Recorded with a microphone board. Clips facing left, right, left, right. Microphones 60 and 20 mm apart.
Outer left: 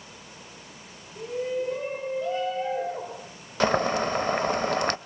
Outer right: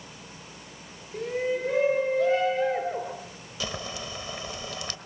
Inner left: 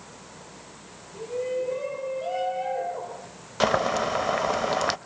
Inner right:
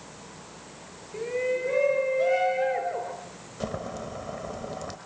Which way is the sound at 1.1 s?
75° right (ahead or behind).